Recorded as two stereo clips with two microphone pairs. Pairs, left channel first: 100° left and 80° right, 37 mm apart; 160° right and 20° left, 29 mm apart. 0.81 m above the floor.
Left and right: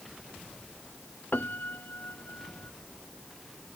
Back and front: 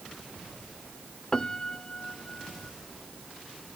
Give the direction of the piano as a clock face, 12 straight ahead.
8 o'clock.